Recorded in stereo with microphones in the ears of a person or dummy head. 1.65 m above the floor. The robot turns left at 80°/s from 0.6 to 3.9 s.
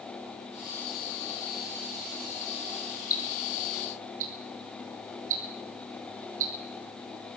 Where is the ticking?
20° left (ahead or behind), 7.5 m; by 7.4 s 45° right (ahead or behind), 7.5 m.